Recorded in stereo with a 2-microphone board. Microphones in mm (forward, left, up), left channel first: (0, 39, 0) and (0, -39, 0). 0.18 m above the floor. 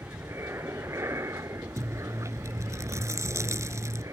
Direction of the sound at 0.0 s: 35° right (ahead or behind).